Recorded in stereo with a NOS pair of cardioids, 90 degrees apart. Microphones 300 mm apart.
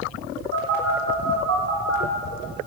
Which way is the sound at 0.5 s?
45° right.